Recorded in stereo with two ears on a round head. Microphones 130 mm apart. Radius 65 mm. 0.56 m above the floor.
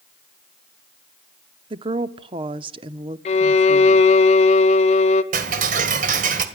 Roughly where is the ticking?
Right.